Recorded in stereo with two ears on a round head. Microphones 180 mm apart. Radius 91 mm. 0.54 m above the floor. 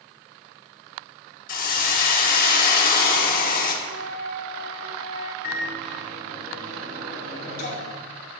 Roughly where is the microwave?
Left.